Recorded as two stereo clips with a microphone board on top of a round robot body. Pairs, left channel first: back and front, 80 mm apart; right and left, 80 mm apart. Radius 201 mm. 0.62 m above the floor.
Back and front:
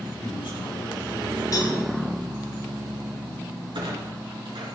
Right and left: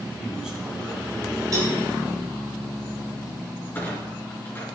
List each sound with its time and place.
0.2 s a man speaking: 170° left, 7 m
1.5 s a cowbell: 140° left, 8 m
3.8 s a clunk: 25° right, 4 m